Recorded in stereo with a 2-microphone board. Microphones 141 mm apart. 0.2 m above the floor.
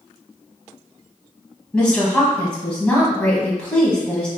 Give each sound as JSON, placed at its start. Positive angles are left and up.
{"t": 1.7, "sound": "a woman speaking", "side_deg": 10, "distance_m": 1.0}